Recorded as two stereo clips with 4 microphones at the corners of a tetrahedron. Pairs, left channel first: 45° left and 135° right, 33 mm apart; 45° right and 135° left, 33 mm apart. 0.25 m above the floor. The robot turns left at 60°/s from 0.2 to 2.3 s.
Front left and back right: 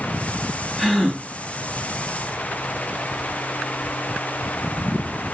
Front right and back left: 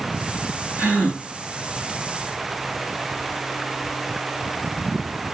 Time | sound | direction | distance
0.8 | a gasp | 125° left | 3 m